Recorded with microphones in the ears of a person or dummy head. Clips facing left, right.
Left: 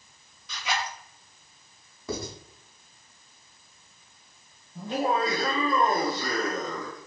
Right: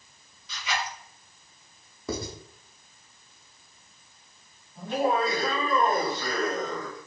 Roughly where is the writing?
Right.